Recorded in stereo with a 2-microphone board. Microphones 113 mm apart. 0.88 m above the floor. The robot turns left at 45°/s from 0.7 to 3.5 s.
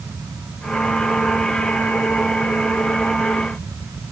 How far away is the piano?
I don't hear a piano.